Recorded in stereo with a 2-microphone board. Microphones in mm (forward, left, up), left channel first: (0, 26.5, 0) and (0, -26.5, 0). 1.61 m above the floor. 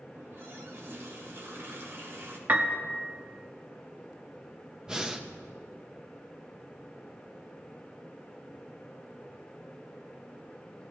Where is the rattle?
No rattle in this recording.